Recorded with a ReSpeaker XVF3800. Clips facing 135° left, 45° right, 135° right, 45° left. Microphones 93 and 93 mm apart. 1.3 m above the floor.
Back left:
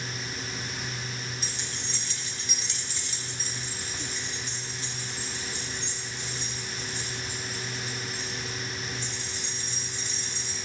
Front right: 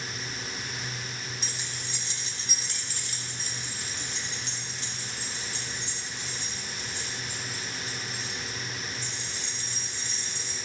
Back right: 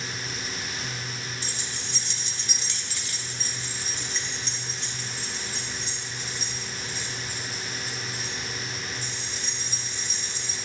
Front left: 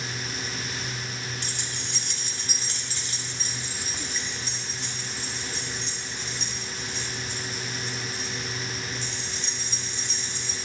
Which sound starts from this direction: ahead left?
Keys jangling, at 1.4 s.